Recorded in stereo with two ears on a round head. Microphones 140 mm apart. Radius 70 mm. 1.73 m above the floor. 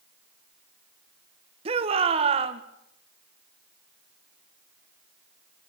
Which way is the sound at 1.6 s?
35° right (ahead or behind).